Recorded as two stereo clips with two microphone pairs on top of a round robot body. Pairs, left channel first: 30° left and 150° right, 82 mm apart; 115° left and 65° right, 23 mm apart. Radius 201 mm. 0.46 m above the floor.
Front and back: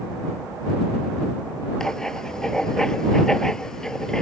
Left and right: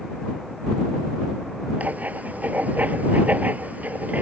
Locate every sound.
1.8 s writing: 55° right